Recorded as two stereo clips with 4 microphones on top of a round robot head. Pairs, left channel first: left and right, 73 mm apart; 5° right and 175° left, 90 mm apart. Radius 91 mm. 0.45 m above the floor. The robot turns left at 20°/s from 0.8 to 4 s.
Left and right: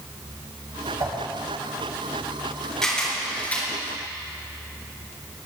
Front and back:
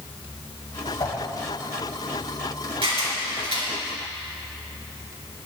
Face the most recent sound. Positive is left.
turn(degrees=150)